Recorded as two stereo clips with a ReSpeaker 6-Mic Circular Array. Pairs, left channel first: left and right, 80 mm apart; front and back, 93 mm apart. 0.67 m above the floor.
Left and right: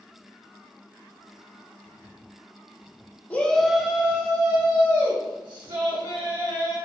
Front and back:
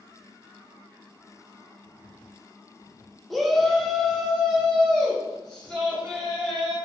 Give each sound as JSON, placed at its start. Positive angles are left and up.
{"t": 3.3, "sound": "a shout", "azimuth_deg": 90, "distance_m": 0.6}